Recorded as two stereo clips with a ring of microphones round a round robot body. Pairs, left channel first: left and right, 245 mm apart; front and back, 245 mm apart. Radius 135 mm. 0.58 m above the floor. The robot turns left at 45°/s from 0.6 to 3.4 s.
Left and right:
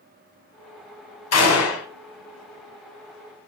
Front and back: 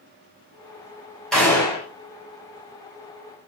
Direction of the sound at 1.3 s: 90° left.